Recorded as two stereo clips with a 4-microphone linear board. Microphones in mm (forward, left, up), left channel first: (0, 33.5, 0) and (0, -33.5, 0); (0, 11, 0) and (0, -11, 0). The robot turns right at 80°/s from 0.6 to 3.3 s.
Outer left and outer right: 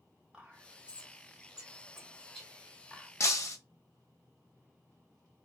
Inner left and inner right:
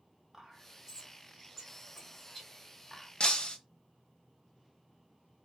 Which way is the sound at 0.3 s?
15° right (ahead or behind).